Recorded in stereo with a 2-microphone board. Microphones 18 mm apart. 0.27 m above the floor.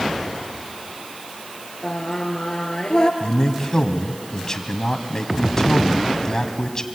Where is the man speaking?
30° left (ahead or behind), 1.8 m.